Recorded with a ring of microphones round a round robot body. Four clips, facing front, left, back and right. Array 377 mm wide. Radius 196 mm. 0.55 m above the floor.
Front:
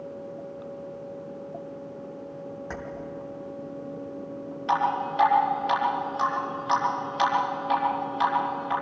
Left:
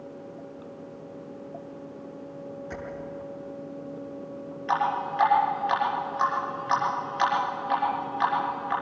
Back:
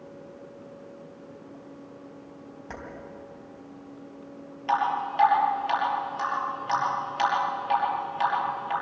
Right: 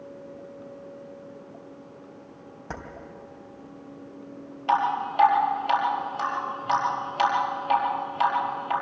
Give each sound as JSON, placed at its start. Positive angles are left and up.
{"t": 2.7, "sound": "keys jangling", "azimuth_deg": -75, "distance_m": 3.0}
{"t": 4.7, "sound": "dripping", "azimuth_deg": -85, "distance_m": 5.0}